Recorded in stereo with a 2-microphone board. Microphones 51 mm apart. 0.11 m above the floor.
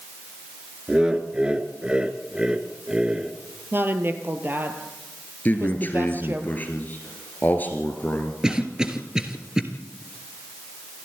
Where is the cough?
15° right (ahead or behind), 2 m.